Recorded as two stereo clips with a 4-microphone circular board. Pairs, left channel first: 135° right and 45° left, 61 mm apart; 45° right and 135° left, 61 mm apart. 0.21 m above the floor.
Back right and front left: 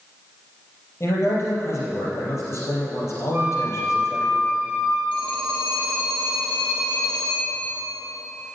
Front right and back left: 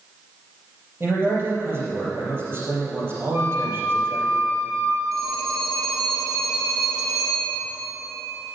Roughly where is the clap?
No clap in this recording.